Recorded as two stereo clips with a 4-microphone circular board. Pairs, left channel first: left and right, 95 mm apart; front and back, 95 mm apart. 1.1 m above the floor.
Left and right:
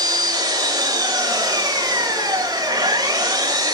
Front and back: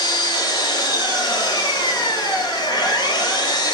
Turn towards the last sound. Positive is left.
turn(degrees=-40)